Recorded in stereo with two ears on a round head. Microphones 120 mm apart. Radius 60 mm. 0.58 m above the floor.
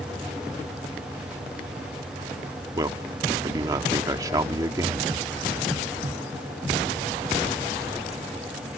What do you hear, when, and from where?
2.8 s a man speaking: 25° right (ahead or behind)